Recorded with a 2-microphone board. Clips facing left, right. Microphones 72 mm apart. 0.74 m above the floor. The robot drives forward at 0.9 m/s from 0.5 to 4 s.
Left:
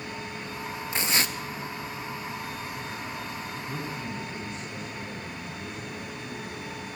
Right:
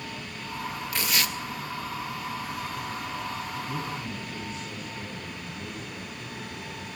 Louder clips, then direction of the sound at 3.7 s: Right 1 dB; 5° right (ahead or behind).